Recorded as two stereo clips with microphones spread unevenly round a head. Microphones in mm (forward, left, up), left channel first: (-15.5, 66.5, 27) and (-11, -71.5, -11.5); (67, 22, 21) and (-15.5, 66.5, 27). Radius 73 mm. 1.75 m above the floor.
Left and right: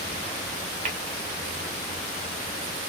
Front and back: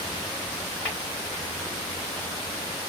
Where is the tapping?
125° right, 1.1 m.